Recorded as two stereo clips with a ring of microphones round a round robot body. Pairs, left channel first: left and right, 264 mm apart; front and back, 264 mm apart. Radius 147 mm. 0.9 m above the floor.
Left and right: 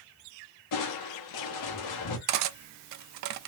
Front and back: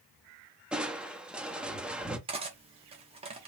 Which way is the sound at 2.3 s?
110° right.